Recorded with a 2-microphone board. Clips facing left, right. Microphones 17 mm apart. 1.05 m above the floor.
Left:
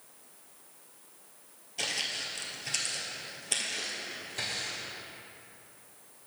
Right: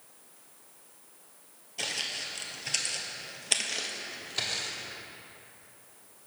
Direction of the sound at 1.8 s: Centre (ahead or behind).